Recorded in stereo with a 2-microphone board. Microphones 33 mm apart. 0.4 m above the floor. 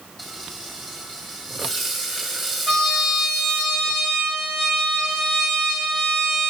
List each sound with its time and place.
0.2 s frying: 5° left (ahead or behind), 1.7 m
2.7 s a trumpet: 15° left (ahead or behind), 3.5 m